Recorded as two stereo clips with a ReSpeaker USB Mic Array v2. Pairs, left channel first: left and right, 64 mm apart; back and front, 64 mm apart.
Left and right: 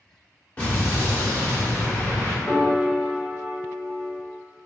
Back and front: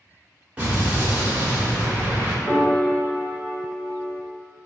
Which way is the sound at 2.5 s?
15° left.